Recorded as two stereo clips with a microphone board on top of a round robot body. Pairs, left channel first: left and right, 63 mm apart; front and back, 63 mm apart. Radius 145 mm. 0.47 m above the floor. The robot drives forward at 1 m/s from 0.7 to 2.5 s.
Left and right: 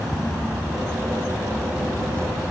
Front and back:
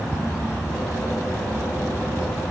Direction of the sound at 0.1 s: 170° left.